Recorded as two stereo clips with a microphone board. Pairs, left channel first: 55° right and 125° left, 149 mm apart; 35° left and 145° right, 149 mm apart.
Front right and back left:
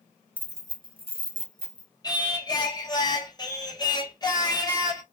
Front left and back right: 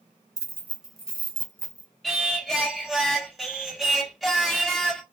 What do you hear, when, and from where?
0.4 s keys jangling: 170° right, 0.6 m; by 1.9 s 100° left, 1.1 m
2.0 s singing: 55° right, 0.8 m